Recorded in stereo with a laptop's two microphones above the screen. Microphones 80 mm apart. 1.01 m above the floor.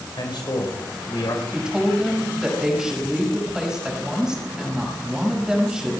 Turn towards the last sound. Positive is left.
turn(degrees=-10)  # may be behind; listen again after turning